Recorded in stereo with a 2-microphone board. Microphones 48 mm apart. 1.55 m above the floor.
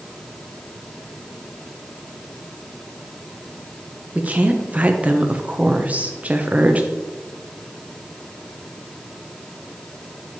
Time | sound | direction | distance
4.2 | a woman speaking | 30° right (ahead or behind) | 0.7 m